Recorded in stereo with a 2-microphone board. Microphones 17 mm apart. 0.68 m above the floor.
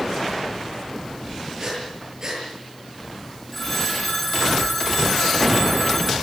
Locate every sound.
1.6 s breathing: 35° right (ahead or behind), 7.5 m
3.5 s a phone ringing: 10° left (ahead or behind), 4.5 m